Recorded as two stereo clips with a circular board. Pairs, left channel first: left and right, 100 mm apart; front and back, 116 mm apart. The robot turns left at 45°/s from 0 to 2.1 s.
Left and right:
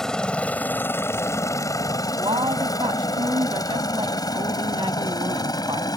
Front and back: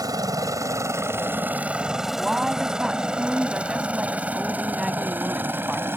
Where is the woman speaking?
95° right.